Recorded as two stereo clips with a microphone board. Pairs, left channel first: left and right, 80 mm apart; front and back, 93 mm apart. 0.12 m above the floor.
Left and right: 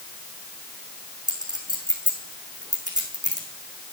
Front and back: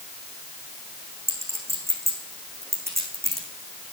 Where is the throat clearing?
I don't hear throat clearing.